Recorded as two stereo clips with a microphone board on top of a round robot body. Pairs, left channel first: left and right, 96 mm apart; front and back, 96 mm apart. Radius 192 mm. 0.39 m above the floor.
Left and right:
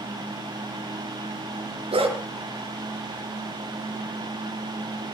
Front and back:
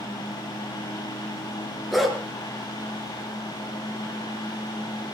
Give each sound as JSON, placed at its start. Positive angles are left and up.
{"t": 1.9, "sound": "a dog barking", "azimuth_deg": -90, "distance_m": 3.5}